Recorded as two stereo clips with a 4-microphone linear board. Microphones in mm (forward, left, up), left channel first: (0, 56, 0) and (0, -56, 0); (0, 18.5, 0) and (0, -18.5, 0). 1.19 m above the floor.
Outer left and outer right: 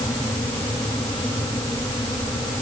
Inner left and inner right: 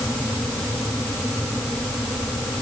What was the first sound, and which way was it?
Only background noise.